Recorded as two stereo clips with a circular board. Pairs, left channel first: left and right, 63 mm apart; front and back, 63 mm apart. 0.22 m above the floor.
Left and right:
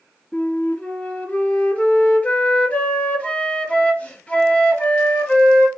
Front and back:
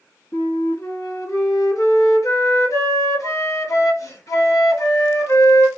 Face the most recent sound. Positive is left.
turn(degrees=25)